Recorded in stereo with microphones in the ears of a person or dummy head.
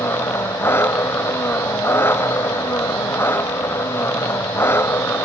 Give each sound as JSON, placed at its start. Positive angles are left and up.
{"t": 0.0, "sound": "an engine running", "side_deg": 10}